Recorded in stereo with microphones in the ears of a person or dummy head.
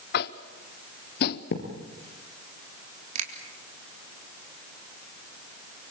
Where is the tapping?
60° left (ahead or behind), 1.0 m.